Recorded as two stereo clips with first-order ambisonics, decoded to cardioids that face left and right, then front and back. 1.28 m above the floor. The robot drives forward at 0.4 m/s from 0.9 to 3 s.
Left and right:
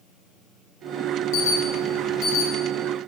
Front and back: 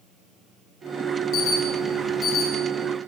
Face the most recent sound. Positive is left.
turn(degrees=65)